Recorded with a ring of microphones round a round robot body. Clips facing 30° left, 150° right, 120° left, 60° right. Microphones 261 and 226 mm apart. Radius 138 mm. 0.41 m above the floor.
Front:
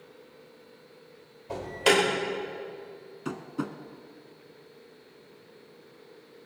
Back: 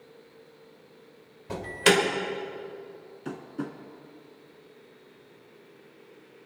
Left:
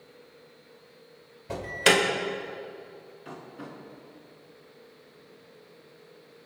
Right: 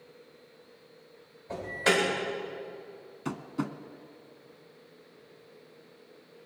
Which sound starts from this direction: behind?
An alarm, at 1.5 s.